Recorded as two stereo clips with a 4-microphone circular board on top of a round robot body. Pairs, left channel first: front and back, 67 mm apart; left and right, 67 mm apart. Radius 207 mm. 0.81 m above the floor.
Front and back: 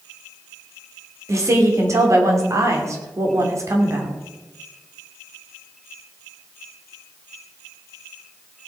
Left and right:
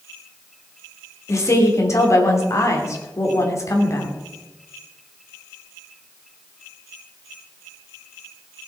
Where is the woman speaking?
135° left, 3 m.